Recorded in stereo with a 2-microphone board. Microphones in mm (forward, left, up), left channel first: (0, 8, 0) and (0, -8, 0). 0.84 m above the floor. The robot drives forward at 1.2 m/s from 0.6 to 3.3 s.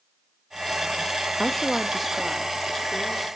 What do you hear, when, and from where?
1.4 s a woman speaking: 10° left (ahead or behind), 0.7 m; by 3.3 s centre (ahead or behind), 2.5 m